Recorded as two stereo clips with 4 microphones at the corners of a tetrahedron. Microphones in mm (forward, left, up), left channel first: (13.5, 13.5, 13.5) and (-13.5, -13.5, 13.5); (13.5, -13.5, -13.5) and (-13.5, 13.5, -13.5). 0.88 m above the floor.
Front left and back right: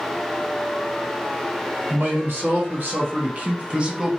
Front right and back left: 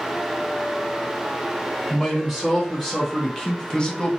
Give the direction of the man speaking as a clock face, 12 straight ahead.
4 o'clock.